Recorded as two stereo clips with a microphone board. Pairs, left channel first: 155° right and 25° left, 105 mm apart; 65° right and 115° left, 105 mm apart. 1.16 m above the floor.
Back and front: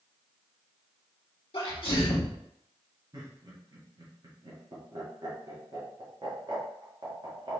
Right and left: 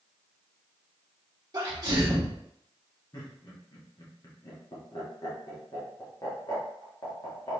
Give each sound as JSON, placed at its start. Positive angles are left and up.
{"t": 1.5, "sound": "a sneeze", "azimuth_deg": 170, "distance_m": 0.8}
{"t": 3.1, "sound": "laughter", "azimuth_deg": -20, "distance_m": 1.3}